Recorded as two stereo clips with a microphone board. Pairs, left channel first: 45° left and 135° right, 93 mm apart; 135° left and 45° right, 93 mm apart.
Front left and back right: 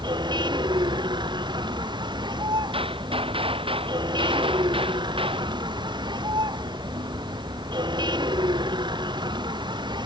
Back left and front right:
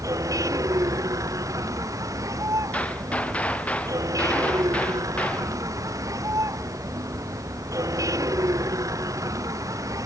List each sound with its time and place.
0.0 s a vehicle: 100° right
2.7 s a gunshot: 150° right